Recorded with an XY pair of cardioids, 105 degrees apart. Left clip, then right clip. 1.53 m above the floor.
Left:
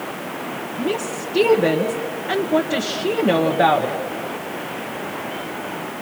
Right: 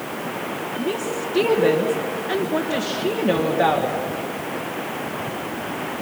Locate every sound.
0.8 s a woman speaking: 25° left, 1.6 m